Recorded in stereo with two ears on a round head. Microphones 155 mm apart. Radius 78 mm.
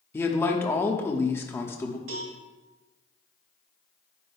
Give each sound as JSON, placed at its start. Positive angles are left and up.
{"t": 0.1, "sound": "a man speaking", "side_deg": 15, "distance_m": 1.1}
{"t": 2.1, "sound": "a cowbell", "side_deg": -75, "distance_m": 2.5}